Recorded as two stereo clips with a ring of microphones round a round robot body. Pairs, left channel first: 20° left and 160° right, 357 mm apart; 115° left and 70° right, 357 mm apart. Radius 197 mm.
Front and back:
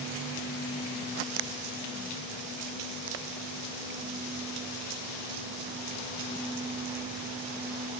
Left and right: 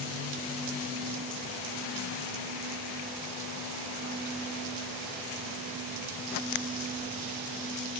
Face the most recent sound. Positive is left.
No sound to turn to.